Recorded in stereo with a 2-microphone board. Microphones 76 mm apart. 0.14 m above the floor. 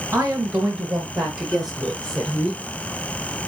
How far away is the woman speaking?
About 1.7 m.